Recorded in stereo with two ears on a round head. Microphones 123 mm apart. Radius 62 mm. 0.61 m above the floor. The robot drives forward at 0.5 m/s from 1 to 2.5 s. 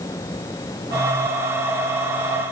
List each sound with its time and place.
Only background noise.